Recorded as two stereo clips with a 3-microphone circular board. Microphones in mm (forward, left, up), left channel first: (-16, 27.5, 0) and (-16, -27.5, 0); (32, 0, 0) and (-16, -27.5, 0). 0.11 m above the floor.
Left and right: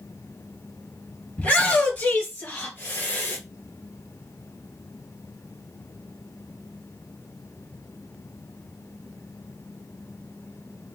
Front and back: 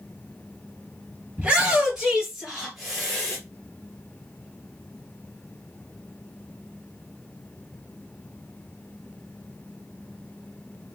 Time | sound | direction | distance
1.4 | a shout | 150° left | 2 m